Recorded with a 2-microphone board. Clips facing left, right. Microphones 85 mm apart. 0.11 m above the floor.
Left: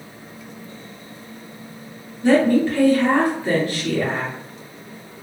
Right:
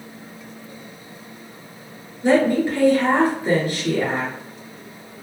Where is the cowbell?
No cowbell in this recording.